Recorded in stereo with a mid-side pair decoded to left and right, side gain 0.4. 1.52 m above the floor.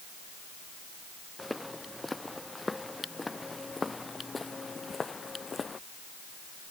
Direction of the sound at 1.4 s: 10° left.